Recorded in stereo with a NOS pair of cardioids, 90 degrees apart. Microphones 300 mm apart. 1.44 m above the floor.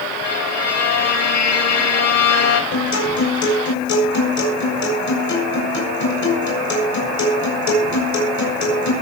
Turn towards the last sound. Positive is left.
turn(degrees=65)